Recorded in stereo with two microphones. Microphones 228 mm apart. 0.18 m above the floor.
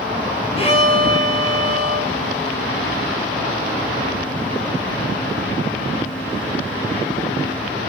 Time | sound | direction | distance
0.6 | a violin | 25° left (ahead or behind) | 0.7 m